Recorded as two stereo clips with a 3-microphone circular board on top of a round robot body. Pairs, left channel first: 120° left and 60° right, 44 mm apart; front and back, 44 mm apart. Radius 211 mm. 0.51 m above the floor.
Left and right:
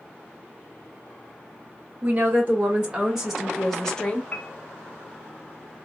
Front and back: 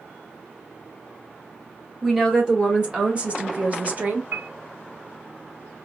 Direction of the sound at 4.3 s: 170° left.